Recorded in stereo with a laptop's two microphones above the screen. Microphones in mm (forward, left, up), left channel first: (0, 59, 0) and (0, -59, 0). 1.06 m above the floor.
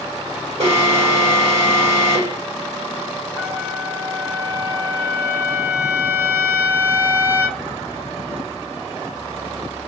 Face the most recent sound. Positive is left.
turn(degrees=-20)  # may be behind; listen again after turning